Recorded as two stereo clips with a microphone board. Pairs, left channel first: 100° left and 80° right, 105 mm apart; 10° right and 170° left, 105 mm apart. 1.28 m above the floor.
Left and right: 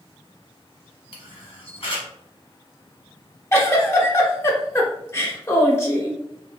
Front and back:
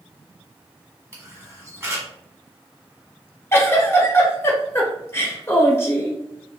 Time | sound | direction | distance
1.1 | a camera shutter | 110° left | 1.1 m
3.5 | a giggle | 40° left | 0.7 m